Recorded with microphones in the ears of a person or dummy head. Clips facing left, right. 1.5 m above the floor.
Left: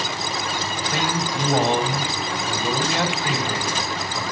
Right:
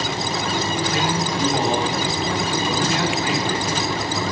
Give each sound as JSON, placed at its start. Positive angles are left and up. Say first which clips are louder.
{"t": 0.9, "sound": "a man speaking", "louder": "right 2 dB", "side_deg": 55, "distance_m": 3.5}